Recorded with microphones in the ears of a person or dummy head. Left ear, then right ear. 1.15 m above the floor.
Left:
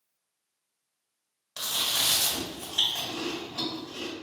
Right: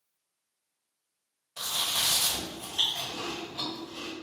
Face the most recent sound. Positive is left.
turn(degrees=60)  # may be behind; listen again after turning